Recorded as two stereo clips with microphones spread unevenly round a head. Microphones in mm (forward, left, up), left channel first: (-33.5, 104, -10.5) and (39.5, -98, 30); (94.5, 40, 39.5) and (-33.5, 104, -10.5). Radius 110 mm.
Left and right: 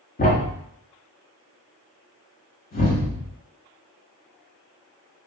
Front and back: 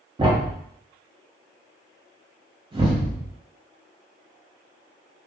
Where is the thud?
85° left, 0.8 m.